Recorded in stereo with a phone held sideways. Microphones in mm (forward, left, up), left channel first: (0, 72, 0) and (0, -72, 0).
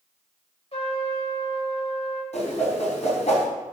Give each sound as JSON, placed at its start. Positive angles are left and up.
{"t": 0.7, "sound": "a trumpet", "side_deg": 45, "distance_m": 2.0}
{"t": 2.3, "sound": "a whoosh", "side_deg": 50, "distance_m": 3.5}